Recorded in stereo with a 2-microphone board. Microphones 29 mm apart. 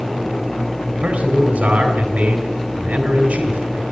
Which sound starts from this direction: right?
A man speaking, at 0.9 s.